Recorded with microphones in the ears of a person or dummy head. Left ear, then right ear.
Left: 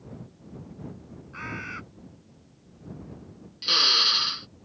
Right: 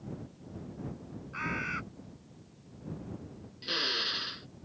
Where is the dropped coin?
I don't hear a dropped coin.